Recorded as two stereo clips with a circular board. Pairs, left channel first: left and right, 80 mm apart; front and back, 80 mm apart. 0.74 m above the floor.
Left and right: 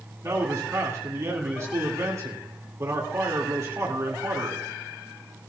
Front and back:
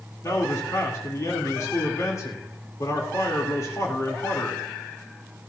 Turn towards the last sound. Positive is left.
turn(degrees=-45)